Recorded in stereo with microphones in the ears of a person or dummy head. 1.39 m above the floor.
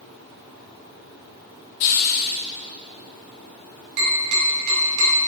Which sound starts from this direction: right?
Tapping, at 4.0 s.